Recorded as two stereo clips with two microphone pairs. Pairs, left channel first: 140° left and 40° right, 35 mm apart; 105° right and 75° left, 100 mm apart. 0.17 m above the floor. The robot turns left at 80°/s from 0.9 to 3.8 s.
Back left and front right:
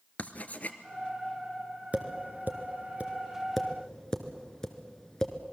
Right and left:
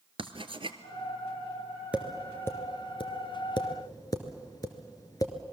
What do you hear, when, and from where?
0.2 s writing: 95° left, 1.1 m
1.9 s tapping: straight ahead, 1.7 m; by 5.3 s 150° right, 1.7 m